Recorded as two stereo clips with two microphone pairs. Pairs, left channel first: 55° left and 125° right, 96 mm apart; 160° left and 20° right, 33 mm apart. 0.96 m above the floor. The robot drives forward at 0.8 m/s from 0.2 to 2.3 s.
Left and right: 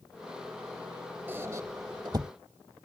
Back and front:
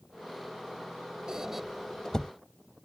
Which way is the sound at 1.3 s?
70° right.